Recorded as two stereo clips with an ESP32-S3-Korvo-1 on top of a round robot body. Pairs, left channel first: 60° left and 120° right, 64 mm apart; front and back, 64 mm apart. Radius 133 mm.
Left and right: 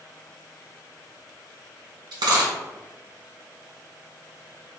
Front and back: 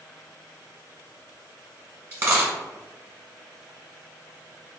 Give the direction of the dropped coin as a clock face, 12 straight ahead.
4 o'clock.